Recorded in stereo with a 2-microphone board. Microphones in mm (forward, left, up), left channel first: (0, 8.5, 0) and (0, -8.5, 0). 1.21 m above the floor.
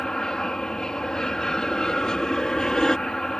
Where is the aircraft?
40° left (ahead or behind).